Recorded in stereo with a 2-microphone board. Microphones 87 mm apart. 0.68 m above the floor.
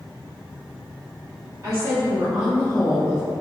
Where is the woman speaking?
40° right (ahead or behind), 1.0 m; by 3.2 s 10° left (ahead or behind), 1.8 m.